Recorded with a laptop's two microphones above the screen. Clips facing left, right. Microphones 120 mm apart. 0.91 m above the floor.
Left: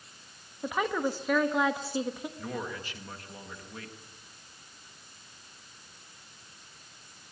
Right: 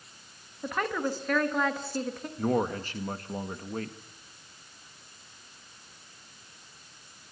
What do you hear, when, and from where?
0.6 s a woman speaking: 10° left (ahead or behind), 1.2 m
2.4 s a man speaking: 45° right (ahead or behind), 1.5 m